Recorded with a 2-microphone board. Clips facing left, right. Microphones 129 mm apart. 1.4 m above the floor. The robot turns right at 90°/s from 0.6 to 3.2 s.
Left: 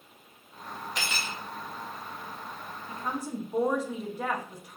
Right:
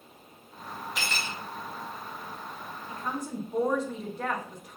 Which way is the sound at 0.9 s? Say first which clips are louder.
Even; 5° right.